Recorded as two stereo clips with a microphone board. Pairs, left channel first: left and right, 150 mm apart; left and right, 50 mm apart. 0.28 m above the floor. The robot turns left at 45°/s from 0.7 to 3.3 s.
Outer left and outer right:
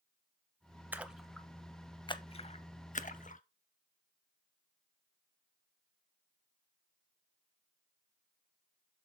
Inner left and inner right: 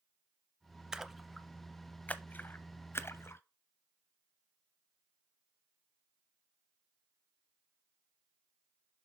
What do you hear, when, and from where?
0.9 s a splash: 10° right (ahead or behind), 0.5 m; by 3.4 s 55° left (ahead or behind), 0.5 m